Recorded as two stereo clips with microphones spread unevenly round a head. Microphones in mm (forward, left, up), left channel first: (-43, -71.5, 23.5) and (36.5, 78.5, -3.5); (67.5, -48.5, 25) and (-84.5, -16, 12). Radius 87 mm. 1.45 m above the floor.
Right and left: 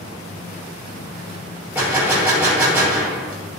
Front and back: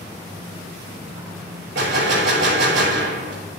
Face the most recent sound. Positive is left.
turn(degrees=140)